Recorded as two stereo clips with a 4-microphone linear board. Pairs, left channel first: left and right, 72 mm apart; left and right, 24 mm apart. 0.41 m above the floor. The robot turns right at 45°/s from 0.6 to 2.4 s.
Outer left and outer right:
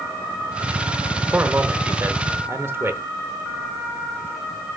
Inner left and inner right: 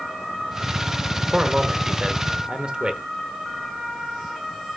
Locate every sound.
1.3 s a man speaking: 130° right, 0.9 m; by 3.0 s 80° right, 0.9 m